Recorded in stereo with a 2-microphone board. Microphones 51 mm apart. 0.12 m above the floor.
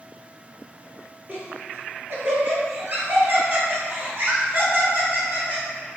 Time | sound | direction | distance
1.3 | laughter | 40° right (ahead or behind) | 1.4 m